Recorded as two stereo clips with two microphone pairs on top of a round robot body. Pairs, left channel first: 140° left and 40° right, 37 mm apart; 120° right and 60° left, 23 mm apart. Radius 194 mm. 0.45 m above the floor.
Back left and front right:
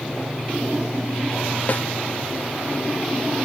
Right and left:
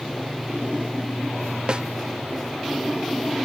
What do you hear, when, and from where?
1.7 s a snare drum: 95° left